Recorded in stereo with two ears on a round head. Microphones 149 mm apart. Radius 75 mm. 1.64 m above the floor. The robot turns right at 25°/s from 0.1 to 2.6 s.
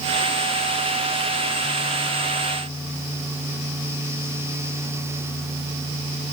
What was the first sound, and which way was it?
Only background noise.